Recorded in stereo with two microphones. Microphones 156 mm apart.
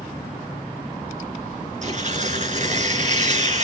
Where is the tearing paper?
50° right (ahead or behind), 4 m.